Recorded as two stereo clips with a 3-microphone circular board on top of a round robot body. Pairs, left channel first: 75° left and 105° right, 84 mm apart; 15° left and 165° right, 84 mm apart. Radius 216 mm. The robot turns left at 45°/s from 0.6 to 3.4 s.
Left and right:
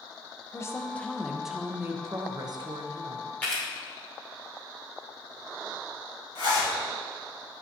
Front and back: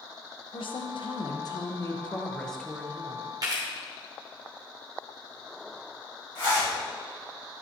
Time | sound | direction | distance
0.5 | a woman speaking | 15° left | 1.0 m
3.4 | a camera shutter | 145° left | 1.1 m
6.3 | a zipper | 50° left | 2.5 m